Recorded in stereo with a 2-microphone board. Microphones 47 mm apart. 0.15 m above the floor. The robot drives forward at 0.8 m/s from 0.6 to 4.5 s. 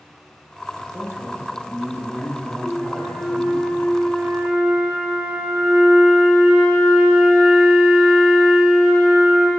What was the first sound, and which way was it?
A man speaking, 75° right (ahead or behind).